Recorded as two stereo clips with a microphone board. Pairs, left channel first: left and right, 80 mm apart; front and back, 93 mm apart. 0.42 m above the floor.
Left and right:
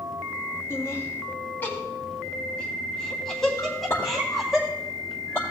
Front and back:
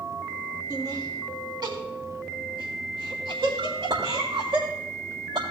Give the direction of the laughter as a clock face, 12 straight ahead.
7 o'clock.